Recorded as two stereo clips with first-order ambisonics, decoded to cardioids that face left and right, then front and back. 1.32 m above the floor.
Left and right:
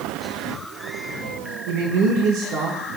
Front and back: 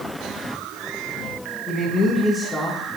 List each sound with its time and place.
1.7 s a man speaking: 75° right, 1.1 m